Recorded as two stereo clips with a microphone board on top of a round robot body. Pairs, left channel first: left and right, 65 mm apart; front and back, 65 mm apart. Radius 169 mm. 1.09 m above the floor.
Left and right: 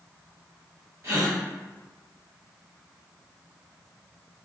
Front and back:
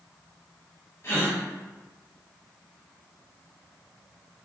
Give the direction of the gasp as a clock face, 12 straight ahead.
2 o'clock.